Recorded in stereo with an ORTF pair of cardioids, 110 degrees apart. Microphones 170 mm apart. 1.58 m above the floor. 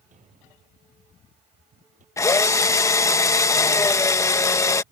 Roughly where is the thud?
Ahead right.